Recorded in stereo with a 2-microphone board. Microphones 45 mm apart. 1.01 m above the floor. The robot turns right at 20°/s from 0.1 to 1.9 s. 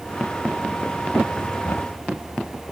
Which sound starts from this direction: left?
Knocking, at 1.6 s.